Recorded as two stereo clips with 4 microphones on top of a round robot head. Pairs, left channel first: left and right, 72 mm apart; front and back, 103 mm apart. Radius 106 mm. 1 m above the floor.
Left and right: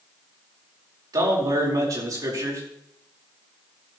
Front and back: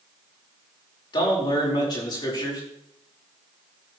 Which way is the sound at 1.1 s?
50° right.